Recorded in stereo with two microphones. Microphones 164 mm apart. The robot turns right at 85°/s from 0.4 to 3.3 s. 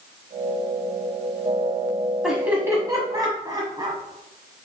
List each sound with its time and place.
2.2 s laughter: 5° right (ahead or behind), 1.0 m; by 4.0 s 25° right (ahead or behind), 1.0 m